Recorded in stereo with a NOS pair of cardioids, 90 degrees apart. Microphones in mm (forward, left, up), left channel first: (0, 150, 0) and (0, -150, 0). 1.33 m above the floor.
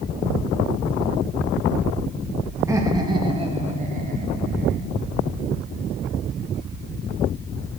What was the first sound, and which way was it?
Laughter, 10° right.